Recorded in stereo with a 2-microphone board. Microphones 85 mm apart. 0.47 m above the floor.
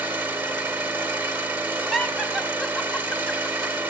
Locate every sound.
0.0 s an engine running: 25° right (ahead or behind), 1.8 m
1.9 s laughter: 5° left (ahead or behind), 1.0 m